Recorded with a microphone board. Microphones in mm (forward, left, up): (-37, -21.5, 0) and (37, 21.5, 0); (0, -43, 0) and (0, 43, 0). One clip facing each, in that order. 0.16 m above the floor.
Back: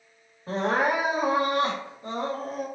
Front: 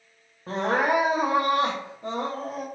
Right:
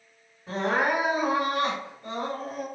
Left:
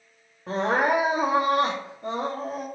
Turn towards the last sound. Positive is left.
turn(degrees=65)